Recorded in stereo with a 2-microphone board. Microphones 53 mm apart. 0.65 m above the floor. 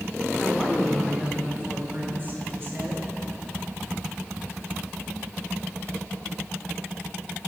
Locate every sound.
0.4 s a woman speaking: 5° left (ahead or behind), 1.8 m; by 3.1 s 50° right (ahead or behind), 2.5 m